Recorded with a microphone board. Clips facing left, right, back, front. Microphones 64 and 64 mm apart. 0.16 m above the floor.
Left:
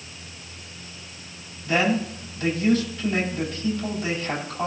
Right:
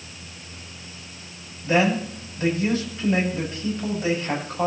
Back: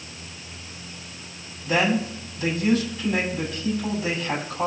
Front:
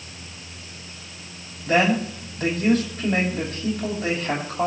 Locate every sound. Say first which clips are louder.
1.6 s a man speaking: right 2 dB, front 2 dB; 30° right, 6.5 m